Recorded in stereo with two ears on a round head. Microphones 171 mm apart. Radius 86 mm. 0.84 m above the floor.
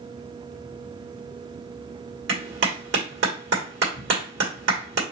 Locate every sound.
2.3 s a clap: 65° right (ahead or behind), 1.6 m